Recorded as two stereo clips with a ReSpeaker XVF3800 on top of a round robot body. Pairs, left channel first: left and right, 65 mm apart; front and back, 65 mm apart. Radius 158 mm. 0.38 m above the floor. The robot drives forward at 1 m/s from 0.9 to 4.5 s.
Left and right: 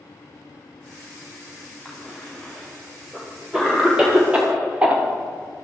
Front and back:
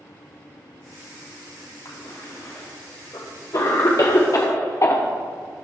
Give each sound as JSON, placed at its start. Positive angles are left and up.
{"t": 1.9, "sound": "a cough", "azimuth_deg": -5, "distance_m": 4.0}